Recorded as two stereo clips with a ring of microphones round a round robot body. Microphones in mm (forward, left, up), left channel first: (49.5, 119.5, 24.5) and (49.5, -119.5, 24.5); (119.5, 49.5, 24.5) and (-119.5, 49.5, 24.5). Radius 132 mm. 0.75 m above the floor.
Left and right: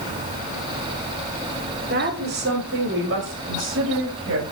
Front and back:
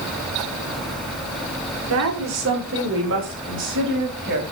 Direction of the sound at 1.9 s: 145° right.